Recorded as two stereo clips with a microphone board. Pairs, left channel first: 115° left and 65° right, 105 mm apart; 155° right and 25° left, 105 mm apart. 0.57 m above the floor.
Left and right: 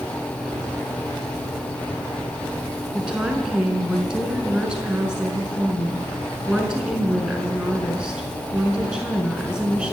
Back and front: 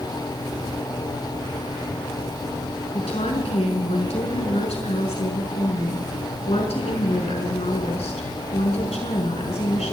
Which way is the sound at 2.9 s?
150° right.